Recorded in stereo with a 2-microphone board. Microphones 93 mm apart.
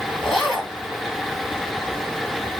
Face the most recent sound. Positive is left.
turn(degrees=-5)  # may be behind; listen again after turning